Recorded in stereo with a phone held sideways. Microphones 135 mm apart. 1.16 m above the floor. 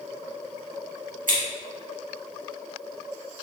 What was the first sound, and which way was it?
Scissors, 85° right.